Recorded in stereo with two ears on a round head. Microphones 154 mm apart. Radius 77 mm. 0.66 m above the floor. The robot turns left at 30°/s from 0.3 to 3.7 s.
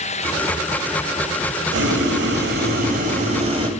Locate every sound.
1.7 s boiling: 85° right, 1.4 m; by 3.7 s 145° right, 1.4 m